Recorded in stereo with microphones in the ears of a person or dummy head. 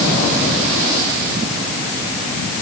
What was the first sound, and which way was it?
Only background noise.